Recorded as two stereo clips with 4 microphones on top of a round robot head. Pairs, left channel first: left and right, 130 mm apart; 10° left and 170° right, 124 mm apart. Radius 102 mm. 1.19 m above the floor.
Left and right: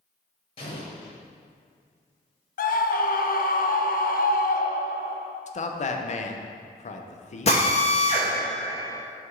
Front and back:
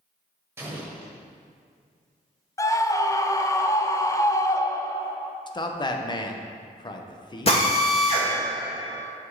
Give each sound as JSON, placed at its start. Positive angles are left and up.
{"t": 0.6, "sound": "an explosion", "azimuth_deg": 130, "distance_m": 1.1}
{"t": 2.6, "sound": "a scream", "azimuth_deg": 75, "distance_m": 0.6}
{"t": 5.5, "sound": "a man speaking", "azimuth_deg": 65, "distance_m": 0.8}
{"t": 7.5, "sound": "a drill", "azimuth_deg": 50, "distance_m": 1.7}